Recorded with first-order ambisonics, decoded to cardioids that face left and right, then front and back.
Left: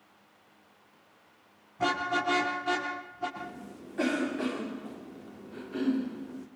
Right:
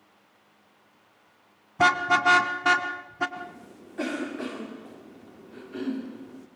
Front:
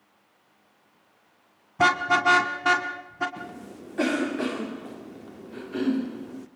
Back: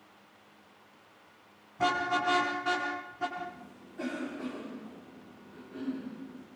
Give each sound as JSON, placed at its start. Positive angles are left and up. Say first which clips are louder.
{"t": 1.8, "sound": "a car horn", "louder": "right 8 dB, front 8 dB", "azimuth_deg": -50, "distance_m": 2.5}
{"t": 3.4, "sound": "a cough", "louder": "right 1 dB, front 2 dB", "azimuth_deg": 0, "distance_m": 1.5}